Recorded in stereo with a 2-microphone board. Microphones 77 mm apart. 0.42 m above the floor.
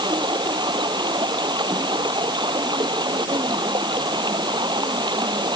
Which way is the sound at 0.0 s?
75° right (ahead or behind).